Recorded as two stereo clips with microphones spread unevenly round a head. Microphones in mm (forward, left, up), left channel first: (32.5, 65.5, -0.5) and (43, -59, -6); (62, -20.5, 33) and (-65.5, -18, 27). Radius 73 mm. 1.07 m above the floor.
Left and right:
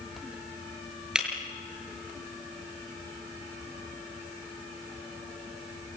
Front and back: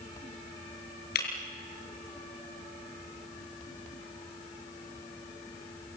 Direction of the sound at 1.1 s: Straight ahead.